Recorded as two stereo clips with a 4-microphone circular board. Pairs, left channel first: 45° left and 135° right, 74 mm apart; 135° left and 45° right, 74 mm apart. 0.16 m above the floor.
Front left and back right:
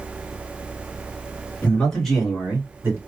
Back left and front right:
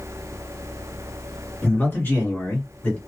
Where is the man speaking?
100° left, 1.9 m; by 3.0 s 170° right, 2 m.